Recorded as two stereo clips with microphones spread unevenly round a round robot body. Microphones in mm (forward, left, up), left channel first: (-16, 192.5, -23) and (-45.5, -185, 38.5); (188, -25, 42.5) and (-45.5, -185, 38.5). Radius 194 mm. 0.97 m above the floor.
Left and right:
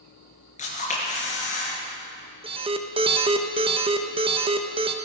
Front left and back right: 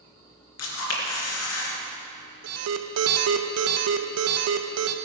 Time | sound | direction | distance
0.6 | a camera shutter | 10° left | 3 m
2.4 | an alarm | 175° right | 0.6 m